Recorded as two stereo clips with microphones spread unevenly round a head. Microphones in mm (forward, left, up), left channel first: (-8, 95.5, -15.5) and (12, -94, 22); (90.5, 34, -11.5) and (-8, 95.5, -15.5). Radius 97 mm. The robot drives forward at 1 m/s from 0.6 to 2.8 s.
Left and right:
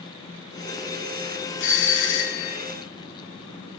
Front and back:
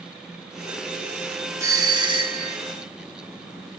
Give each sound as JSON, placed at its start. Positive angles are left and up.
{"t": 1.6, "sound": "a doorbell", "azimuth_deg": 85, "distance_m": 2.0}